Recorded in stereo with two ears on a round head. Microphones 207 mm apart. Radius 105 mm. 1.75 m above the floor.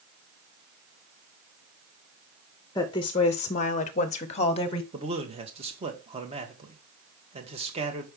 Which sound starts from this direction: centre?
A woman speaking, at 2.8 s.